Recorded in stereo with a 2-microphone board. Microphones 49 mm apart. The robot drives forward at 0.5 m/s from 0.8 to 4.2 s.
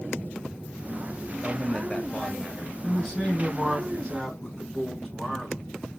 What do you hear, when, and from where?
1.4 s a man speaking: 15° left (ahead or behind), 1.1 m
2.8 s a man speaking: 10° left (ahead or behind), 3 m